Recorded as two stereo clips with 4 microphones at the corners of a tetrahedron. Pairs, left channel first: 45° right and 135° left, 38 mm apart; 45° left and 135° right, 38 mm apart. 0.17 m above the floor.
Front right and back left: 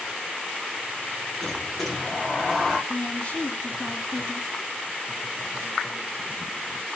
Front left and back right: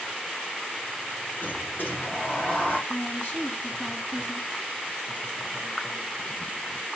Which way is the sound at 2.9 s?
10° left.